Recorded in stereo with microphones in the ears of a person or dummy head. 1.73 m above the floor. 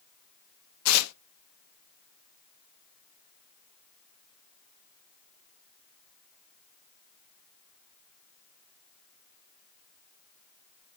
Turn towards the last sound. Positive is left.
turn(degrees=85)